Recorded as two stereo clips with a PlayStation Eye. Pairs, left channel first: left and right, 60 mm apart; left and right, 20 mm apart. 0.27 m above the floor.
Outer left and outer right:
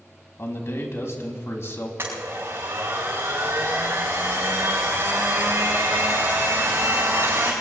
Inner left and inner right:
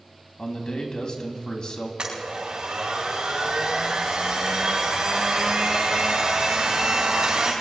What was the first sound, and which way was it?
A man speaking, 45° left (ahead or behind).